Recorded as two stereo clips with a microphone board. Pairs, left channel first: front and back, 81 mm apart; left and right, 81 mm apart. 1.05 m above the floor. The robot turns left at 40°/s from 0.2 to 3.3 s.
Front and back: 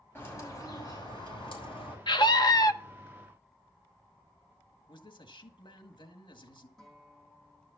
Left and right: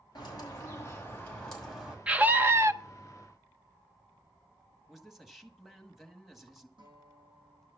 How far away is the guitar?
About 9 m.